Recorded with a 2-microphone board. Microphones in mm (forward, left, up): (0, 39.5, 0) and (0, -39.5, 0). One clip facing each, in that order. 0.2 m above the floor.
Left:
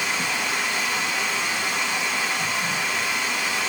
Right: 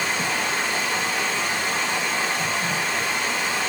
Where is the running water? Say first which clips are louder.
Right 1 dB; 35° right (ahead or behind), 3.5 m.